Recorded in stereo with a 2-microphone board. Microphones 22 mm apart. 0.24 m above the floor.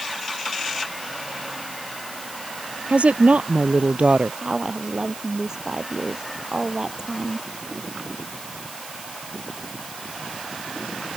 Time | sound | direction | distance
2.9 | a woman speaking | 80° right | ?
4.4 | a woman speaking | 30° right (ahead or behind) | ?